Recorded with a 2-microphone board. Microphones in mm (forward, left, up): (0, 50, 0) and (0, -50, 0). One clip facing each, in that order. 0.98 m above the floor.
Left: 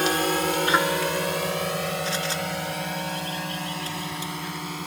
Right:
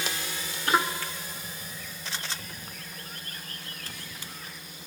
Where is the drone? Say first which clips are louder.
Left 13 dB; 60° left (ahead or behind); by 4.9 s 75° left (ahead or behind).